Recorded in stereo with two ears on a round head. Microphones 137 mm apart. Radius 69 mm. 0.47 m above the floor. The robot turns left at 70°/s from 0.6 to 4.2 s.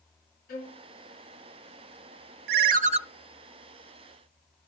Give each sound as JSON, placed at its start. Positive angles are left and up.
{"t": 0.5, "sound": "a violin", "side_deg": 65, "distance_m": 4.5}
{"t": 2.5, "sound": "a ringtone", "azimuth_deg": -105, "distance_m": 0.6}